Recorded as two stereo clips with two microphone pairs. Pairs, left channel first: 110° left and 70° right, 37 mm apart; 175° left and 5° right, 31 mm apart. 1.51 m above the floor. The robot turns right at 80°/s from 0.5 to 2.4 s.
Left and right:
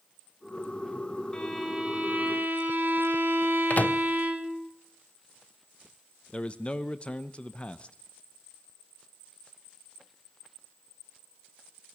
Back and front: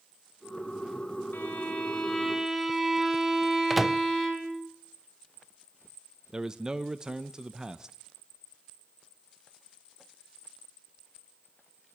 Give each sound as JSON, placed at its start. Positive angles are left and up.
{"t": 1.3, "sound": "a violin", "azimuth_deg": 180, "distance_m": 2.5}
{"t": 3.7, "sound": "a microwave", "azimuth_deg": 75, "distance_m": 0.8}
{"t": 6.3, "sound": "a man speaking", "azimuth_deg": 55, "distance_m": 1.0}